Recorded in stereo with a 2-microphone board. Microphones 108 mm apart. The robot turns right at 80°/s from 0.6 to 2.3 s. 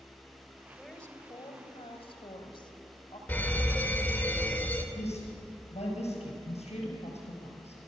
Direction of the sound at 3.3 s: 15° left (ahead or behind).